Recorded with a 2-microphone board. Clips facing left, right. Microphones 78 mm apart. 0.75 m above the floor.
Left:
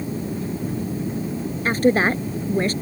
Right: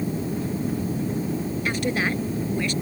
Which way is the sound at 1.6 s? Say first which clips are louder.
Left 9 dB; 40° left (ahead or behind).